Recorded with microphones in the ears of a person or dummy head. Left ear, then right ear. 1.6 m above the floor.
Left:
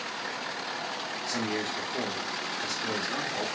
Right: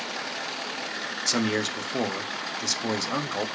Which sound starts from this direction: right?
A man speaking, at 1.3 s.